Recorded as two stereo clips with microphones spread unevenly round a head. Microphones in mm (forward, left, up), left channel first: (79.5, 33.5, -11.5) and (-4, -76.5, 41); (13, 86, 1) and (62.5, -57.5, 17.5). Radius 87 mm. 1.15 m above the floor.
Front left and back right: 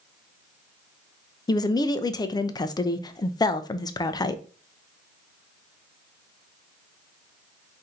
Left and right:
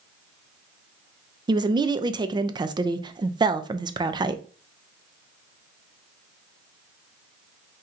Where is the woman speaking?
5° right, 0.6 m.